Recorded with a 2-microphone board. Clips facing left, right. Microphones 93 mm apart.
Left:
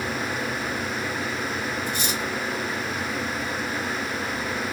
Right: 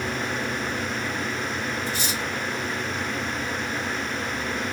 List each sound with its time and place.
1.9 s cutlery clinking: 15° left (ahead or behind), 1.7 m